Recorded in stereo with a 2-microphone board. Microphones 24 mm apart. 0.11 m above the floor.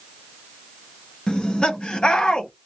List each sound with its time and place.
1.3 s laughter: 40° left (ahead or behind), 1.6 m